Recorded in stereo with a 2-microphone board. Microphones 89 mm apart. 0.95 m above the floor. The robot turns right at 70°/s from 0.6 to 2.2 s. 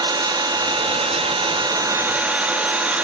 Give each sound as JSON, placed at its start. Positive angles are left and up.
{"t": 0.0, "sound": "an engine running", "azimuth_deg": -130, "distance_m": 1.0}